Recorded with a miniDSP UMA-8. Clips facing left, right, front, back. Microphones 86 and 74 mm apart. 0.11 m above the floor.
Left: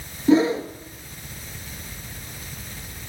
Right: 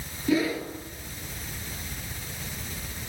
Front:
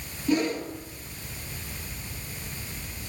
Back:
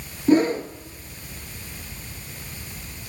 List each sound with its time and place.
0.3 s a whoosh: 140° left, 1.2 m